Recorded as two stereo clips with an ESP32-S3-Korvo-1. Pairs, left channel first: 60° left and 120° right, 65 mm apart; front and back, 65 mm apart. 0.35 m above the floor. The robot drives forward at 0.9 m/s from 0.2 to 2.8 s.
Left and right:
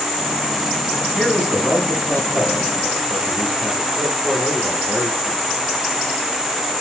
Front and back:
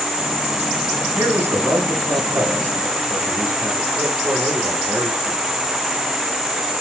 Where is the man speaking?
150° left, 2.5 m; by 5.4 s 165° left, 4 m.